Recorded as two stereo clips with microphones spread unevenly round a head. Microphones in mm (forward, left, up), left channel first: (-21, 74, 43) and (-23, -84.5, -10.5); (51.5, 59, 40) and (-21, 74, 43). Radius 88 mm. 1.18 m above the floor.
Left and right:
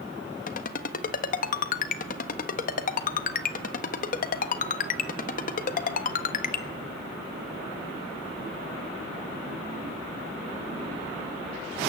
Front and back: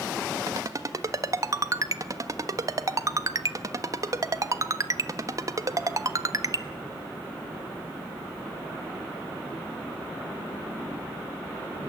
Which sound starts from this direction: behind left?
A ringtone, at 0.5 s.